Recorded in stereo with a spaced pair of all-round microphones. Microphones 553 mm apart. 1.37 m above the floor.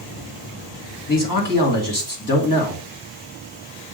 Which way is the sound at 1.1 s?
35° left (ahead or behind).